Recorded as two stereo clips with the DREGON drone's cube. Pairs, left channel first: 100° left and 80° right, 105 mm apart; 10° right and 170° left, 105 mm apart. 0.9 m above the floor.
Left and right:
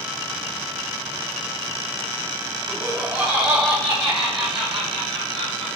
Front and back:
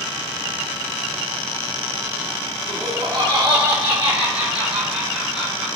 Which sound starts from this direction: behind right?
Laughter, at 2.7 s.